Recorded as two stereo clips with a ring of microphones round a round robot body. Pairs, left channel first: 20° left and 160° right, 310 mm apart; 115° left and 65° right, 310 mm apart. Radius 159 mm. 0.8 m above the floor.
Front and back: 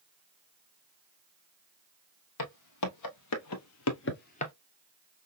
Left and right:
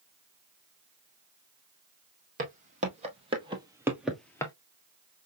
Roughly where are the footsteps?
Ahead.